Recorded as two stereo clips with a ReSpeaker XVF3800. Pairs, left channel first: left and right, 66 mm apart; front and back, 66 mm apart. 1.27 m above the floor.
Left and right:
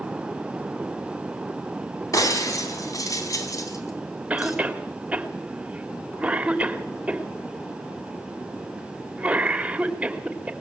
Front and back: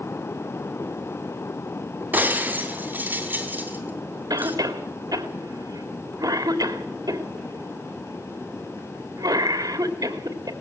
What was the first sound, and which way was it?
Breaking glass, 120° left.